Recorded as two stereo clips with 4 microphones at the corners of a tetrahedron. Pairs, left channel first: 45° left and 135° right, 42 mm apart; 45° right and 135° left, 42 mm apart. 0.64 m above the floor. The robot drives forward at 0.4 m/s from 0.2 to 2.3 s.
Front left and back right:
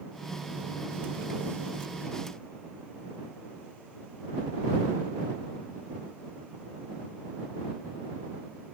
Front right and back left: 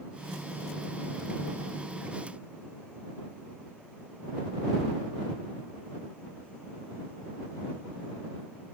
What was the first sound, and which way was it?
Only background noise.